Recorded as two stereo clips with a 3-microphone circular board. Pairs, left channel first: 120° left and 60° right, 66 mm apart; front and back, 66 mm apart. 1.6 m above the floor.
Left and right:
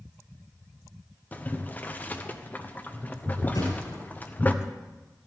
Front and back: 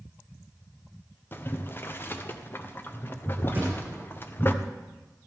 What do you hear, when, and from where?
1.3 s boiling: 55° left, 0.7 m
3.5 s a thud: 120° left, 6.5 m